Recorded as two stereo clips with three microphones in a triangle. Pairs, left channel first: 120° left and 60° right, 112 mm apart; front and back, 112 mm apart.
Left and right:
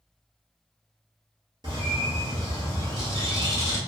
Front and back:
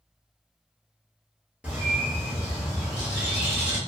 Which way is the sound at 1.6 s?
105° right.